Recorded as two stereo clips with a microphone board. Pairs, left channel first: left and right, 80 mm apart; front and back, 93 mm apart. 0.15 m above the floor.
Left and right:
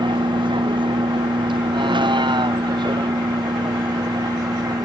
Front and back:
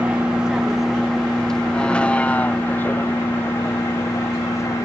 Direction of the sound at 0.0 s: 100° right.